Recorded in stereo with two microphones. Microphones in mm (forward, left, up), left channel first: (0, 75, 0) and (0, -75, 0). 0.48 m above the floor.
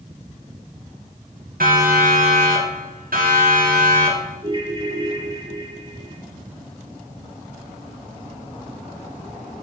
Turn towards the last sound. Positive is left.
turn(degrees=-35)  # may be behind; listen again after turning